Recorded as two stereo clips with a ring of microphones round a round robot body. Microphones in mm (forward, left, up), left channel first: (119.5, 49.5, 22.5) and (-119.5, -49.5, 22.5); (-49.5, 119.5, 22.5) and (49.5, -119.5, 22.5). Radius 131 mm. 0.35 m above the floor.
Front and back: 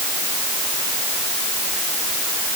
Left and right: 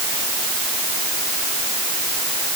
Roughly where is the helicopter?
No helicopter in this recording.